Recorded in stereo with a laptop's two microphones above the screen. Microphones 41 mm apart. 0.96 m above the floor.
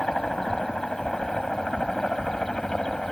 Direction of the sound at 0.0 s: 15° left (ahead or behind).